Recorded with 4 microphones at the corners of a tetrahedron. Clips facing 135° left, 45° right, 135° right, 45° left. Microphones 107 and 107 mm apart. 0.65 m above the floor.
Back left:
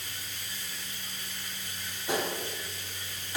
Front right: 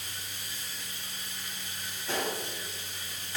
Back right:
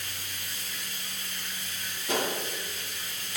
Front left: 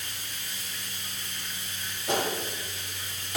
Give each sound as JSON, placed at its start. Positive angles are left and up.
{"t": 0.0, "sound": "running water", "azimuth_deg": 0, "distance_m": 4.5}
{"t": 2.1, "sound": "a gunshot", "azimuth_deg": 60, "distance_m": 3.5}